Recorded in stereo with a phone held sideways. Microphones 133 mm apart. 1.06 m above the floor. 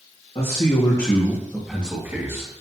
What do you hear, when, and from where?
0.3 s a man speaking: 50° left (ahead or behind), 1.9 m; by 2.5 s 25° right (ahead or behind), 2.5 m